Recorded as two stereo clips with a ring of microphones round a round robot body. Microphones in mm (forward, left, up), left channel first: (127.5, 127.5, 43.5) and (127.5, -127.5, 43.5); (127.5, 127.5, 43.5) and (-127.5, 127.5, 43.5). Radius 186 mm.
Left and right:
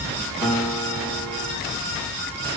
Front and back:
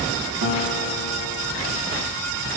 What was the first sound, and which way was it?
A guitar, 175° right.